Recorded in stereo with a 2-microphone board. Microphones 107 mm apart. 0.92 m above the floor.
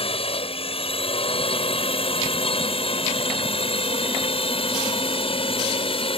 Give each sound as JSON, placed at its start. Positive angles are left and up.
{"t": 0.0, "sound": "a drone", "side_deg": 60}